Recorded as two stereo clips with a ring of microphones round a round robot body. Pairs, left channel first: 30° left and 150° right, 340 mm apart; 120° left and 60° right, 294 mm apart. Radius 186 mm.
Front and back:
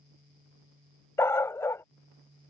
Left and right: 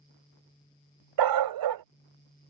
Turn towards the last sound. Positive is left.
turn(degrees=-55)